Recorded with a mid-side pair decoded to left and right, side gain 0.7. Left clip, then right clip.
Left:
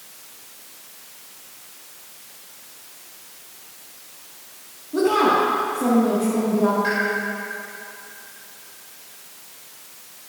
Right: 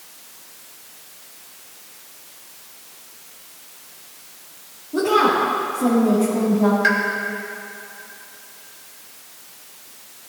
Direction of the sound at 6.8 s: 45° right.